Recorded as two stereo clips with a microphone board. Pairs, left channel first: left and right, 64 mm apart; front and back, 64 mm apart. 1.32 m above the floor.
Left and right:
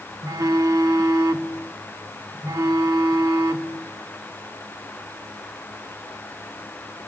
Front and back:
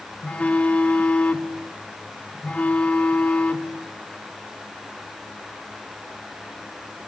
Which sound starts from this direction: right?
A phone buzzing, at 0.2 s.